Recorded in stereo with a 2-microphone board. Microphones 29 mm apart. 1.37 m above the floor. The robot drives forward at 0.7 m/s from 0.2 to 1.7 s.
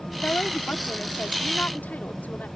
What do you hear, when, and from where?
0.1 s a woman speaking: 85° left; by 2.5 s 70° left (ahead or behind)